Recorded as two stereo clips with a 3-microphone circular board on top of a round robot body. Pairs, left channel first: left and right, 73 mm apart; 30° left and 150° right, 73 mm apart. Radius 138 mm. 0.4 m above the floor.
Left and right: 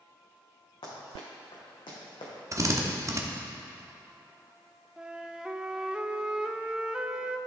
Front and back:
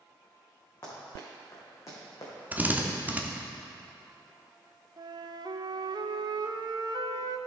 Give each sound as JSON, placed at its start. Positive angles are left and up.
{"t": 0.8, "sound": "running footsteps", "azimuth_deg": 90, "distance_m": 3.0}
{"t": 2.5, "sound": "a drill", "azimuth_deg": -90, "distance_m": 1.1}
{"t": 5.0, "sound": "a flute", "azimuth_deg": -170, "distance_m": 0.5}